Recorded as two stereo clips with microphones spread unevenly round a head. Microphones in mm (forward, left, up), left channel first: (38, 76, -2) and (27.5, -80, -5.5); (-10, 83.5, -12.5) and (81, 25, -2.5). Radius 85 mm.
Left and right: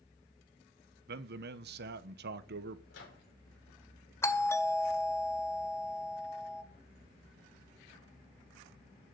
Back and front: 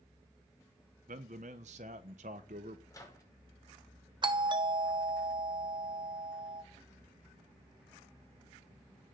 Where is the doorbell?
15° left, 1.5 m.